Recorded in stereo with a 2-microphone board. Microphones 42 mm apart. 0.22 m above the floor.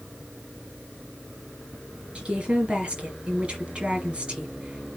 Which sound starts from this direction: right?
A woman speaking, at 2.1 s.